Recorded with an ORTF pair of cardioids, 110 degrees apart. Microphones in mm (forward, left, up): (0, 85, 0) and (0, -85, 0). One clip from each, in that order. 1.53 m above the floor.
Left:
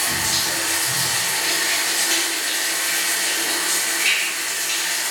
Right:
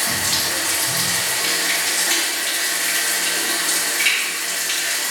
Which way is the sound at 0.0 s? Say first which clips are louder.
Right 1 dB; 25° right.